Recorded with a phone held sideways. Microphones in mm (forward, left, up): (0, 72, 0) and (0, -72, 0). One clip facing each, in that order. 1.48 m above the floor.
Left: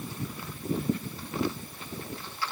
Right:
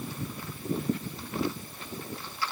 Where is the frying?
I don't hear frying.